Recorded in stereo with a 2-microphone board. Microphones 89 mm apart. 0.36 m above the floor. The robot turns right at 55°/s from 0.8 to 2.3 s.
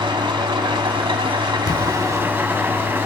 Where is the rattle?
No rattle in this recording.